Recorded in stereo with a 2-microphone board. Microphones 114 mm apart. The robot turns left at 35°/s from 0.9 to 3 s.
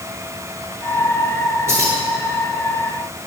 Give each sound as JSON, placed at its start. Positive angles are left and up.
{"t": 1.7, "sound": "keys jangling", "side_deg": -25, "distance_m": 2.5}